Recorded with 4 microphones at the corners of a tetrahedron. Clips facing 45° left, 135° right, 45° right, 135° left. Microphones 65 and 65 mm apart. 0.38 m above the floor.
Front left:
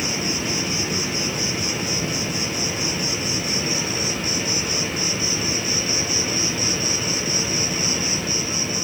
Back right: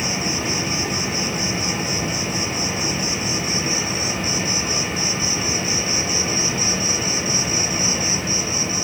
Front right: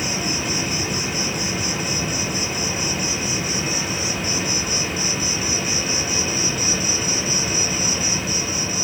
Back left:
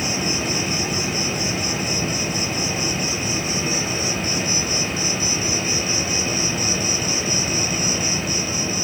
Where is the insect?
130° right, 1.8 m.